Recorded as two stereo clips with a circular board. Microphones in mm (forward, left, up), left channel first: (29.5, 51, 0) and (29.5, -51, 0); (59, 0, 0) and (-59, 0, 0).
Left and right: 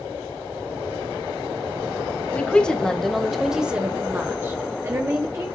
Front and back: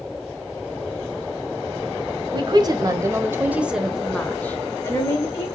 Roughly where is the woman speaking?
Behind.